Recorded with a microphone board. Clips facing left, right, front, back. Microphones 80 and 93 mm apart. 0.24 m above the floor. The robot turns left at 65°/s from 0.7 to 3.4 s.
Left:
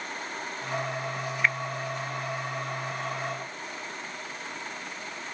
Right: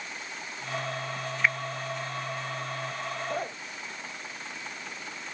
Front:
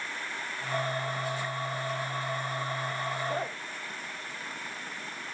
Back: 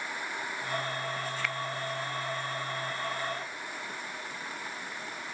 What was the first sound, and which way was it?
A finger snap, 175° right.